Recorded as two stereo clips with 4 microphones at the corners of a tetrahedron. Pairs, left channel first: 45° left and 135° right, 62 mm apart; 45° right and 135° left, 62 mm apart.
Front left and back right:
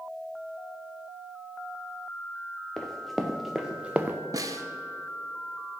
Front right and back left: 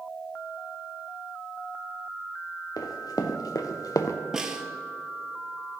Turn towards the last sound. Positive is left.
turn(degrees=-145)